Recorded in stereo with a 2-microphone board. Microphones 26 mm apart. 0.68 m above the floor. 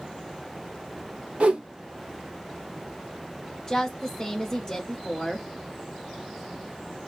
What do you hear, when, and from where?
1.4 s a whoosh: 50° right (ahead or behind), 0.8 m
3.7 s a woman speaking: 20° left (ahead or behind), 0.7 m